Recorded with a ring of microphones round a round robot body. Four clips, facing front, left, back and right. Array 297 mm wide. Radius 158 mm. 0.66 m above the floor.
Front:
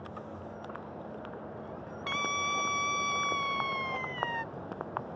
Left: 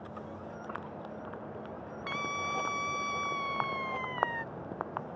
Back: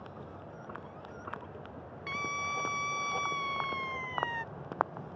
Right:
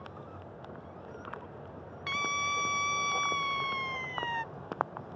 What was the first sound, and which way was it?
A scream, 55° right.